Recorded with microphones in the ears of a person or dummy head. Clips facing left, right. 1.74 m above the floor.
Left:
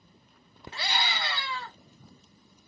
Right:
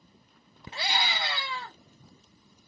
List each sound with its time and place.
0.7 s a scream: 20° right (ahead or behind), 0.8 m